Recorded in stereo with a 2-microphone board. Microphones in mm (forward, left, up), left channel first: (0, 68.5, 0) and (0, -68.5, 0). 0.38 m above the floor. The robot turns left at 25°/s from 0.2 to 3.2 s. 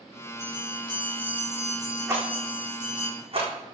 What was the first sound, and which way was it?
A bell, 25° right.